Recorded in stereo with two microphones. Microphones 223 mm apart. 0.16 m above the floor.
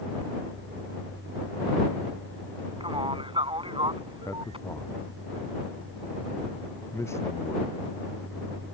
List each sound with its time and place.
2.8 s a man speaking: 25° right (ahead or behind)
4.2 s a man speaking: 10° left (ahead or behind)